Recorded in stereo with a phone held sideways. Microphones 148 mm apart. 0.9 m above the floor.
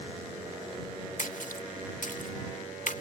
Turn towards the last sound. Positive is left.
turn(degrees=70)  # may be behind; listen again after turning